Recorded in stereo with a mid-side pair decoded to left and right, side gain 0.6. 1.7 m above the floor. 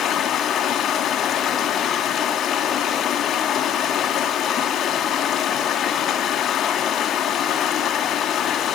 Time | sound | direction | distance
0.0 | running water | 50° left | 3 m